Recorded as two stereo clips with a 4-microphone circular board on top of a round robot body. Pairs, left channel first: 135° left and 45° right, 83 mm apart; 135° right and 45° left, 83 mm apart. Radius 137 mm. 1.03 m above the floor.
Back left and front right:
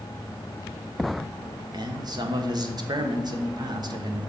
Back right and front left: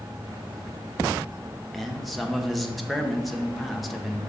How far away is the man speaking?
About 1.1 m.